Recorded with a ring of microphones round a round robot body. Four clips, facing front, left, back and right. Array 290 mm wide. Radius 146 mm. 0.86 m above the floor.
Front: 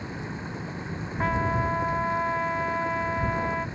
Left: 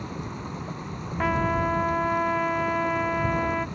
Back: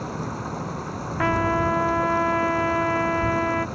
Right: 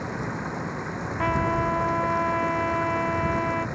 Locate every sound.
0.0 s running water: 135° right
1.2 s a trumpet: straight behind